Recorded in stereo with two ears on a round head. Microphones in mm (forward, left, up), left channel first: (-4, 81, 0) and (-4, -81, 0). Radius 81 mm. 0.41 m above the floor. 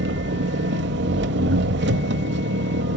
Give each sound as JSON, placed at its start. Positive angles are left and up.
{"t": 0.0, "sound": "an engine running", "side_deg": -65, "distance_m": 1.0}